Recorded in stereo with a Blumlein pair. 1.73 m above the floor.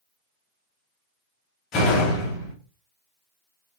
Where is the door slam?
30° left, 1.9 m.